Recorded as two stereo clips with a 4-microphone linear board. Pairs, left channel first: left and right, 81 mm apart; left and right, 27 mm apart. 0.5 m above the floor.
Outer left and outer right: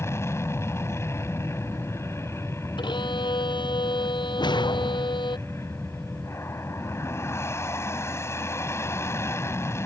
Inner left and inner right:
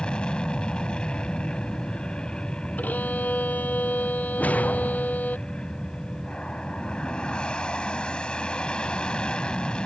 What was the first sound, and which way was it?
An aircraft, 35° left (ahead or behind).